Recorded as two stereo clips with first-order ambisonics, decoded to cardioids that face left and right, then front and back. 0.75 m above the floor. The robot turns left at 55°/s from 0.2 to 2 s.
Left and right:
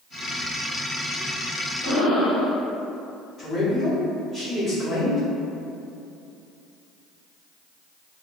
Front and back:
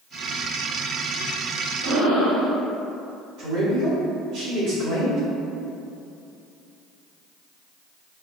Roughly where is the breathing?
Behind.